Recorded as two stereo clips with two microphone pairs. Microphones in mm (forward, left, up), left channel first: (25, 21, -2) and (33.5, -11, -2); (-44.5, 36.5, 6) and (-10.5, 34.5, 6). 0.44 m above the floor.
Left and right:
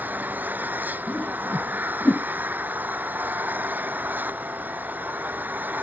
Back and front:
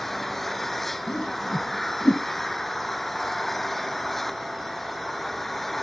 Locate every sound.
0.0 s an engine running: 100° right
1.1 s a whoosh: 140° left